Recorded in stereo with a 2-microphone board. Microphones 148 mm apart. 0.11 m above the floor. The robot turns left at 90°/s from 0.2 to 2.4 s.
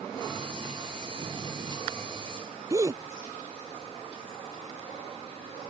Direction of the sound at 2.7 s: 25° right (ahead or behind).